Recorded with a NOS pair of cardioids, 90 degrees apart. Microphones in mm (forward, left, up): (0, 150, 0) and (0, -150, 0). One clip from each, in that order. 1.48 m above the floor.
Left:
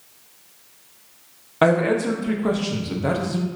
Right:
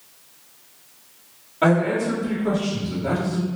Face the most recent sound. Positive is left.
turn(degrees=70)